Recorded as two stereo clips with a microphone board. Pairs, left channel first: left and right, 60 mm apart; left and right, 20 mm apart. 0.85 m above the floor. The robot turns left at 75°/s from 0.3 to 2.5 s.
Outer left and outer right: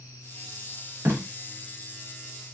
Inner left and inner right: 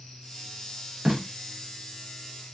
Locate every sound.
1.1 s tape being pulled: 40° right (ahead or behind), 0.9 m; by 1.2 s 45° right (ahead or behind), 0.9 m